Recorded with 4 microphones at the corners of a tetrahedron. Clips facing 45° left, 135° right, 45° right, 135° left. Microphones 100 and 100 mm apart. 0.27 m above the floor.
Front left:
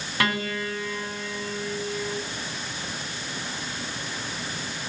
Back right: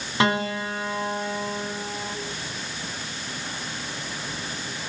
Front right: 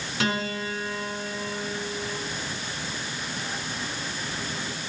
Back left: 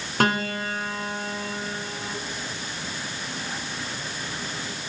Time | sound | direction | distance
0.2 | a piano | 160° left | 1.7 m